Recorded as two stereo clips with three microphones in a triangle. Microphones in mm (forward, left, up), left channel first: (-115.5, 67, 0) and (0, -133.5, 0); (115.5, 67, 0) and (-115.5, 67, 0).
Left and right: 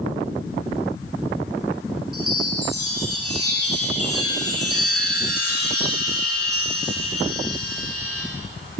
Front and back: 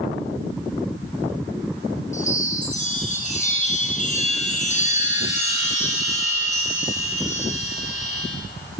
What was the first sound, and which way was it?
A chime, 60° right.